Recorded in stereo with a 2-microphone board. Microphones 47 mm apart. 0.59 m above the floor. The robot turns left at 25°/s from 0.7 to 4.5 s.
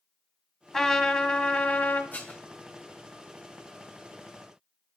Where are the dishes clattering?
40° left (ahead or behind), 2.5 m; by 2.4 s 30° left (ahead or behind), 2.5 m.